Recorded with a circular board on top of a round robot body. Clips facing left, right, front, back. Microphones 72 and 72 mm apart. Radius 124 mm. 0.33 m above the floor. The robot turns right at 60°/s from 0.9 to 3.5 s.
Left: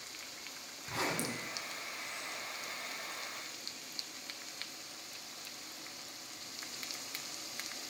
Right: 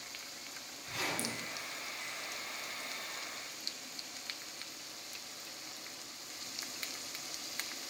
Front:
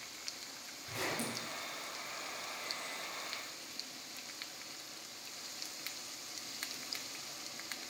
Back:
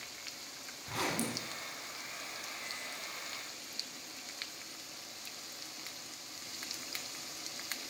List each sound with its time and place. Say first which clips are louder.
0.9 s a zipper: left 2 dB, back 3 dB; 140° left, 1.8 m; by 1.5 s 175° left, 1.8 m